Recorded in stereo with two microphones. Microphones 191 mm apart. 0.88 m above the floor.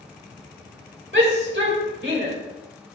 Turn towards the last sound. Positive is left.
turn(degrees=-80)